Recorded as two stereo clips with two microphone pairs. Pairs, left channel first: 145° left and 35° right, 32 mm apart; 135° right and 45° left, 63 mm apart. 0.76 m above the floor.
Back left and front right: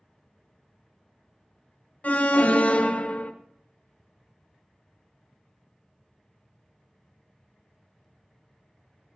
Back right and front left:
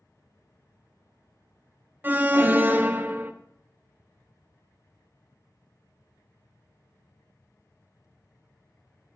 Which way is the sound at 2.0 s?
100° left.